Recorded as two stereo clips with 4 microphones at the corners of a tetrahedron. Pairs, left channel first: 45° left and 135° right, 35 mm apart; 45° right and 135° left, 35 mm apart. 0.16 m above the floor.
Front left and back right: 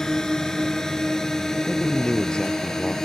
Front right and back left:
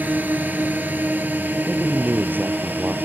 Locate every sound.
0.0 s a drone: 120° left
1.7 s a man speaking: 110° left